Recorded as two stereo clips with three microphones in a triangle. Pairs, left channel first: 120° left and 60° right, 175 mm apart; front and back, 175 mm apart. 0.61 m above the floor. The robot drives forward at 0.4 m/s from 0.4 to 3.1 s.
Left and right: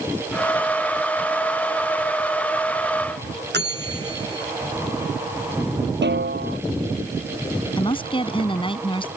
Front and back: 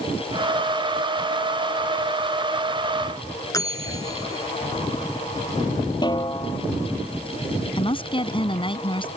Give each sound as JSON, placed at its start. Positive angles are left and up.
{"t": 3.5, "sound": "a bell", "azimuth_deg": -70}
{"t": 6.0, "sound": "a snare drum", "azimuth_deg": -65}
{"t": 7.8, "sound": "a woman speaking", "azimuth_deg": 60}